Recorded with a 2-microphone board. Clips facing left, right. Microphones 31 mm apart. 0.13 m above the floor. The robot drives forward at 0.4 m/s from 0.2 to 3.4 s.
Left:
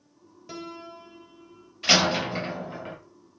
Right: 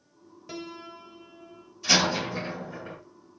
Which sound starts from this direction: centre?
A piano, at 0.5 s.